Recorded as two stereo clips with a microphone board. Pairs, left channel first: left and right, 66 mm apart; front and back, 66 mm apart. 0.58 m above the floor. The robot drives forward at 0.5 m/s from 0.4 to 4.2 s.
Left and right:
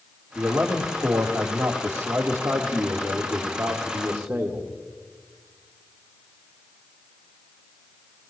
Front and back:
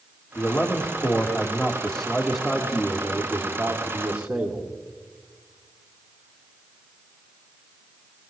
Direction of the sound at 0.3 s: 40° right.